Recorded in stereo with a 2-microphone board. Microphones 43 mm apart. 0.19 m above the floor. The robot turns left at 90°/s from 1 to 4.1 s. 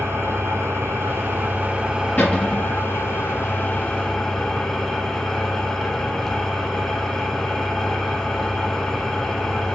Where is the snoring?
I don't hear snoring.